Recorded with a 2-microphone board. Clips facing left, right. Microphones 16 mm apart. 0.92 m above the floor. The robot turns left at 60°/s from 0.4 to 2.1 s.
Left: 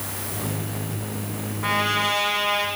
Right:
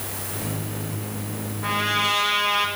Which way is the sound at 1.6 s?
15° left (ahead or behind).